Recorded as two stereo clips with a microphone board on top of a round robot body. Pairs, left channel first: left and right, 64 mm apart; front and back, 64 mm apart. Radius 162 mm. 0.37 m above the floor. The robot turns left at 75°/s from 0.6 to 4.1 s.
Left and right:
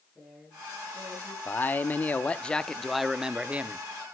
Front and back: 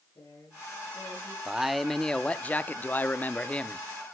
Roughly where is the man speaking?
Left.